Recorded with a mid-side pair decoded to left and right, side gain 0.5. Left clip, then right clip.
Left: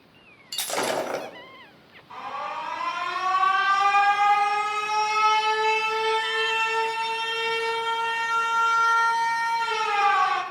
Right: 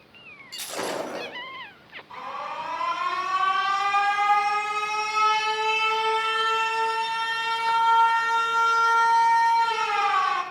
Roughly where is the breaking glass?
Ahead left.